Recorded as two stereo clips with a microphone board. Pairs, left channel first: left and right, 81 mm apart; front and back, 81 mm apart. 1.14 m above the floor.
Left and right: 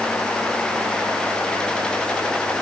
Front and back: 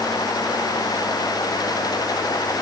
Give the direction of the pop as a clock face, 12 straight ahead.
I don't hear a pop.